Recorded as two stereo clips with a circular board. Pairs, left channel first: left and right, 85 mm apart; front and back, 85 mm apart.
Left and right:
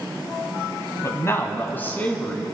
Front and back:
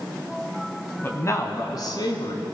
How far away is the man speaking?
About 1.8 m.